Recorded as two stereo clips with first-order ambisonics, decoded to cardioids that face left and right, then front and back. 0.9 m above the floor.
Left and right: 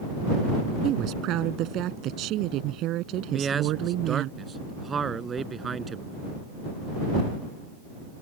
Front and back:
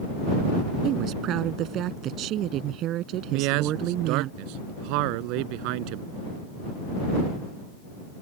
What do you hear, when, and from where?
0.8 s a woman speaking: 135° right
3.3 s a man speaking: 160° right